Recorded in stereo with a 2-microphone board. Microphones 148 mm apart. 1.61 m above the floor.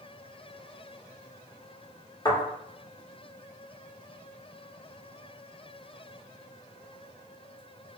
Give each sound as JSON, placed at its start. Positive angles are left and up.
{"t": 2.2, "sound": "a thud", "side_deg": 25, "distance_m": 1.8}